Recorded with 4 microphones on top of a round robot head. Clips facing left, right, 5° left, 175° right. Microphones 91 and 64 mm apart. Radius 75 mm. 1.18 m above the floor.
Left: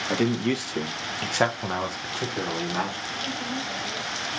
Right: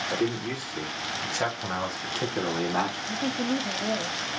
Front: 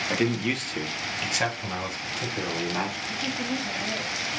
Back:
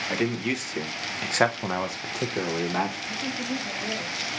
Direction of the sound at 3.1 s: 95° right.